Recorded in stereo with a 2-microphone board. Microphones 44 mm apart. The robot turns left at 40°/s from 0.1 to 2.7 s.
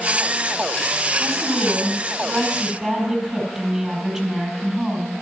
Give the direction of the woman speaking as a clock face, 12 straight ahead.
3 o'clock.